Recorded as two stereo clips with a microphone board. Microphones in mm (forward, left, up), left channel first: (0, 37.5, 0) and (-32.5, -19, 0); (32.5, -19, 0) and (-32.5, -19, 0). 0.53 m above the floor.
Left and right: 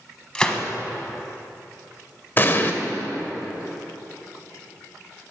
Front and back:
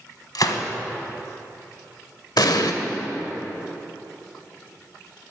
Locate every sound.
0.3 s a gunshot: 20° right, 1.1 m
2.4 s an explosion: 5° left, 0.9 m